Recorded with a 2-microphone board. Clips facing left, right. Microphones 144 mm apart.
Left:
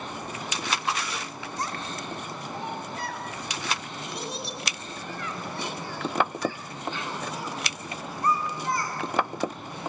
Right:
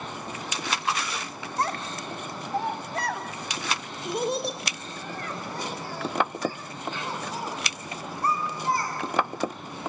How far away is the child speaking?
About 1.9 m.